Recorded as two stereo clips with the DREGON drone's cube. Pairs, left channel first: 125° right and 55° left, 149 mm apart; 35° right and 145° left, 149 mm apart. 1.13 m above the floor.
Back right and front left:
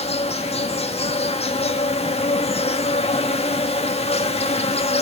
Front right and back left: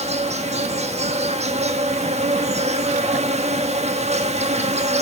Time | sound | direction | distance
0.0 | an insect | 170° right | 1.3 m